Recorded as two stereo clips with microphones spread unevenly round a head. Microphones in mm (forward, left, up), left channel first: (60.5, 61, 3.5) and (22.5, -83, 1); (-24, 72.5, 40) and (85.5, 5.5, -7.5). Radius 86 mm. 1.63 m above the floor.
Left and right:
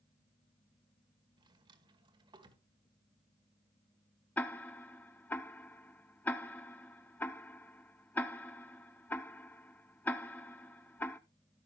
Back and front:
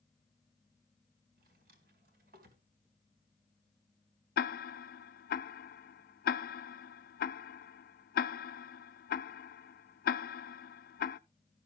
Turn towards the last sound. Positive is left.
turn(degrees=155)